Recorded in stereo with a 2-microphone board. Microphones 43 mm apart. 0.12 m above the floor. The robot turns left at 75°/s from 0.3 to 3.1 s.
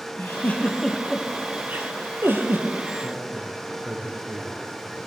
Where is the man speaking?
75° right (ahead or behind), 6 m.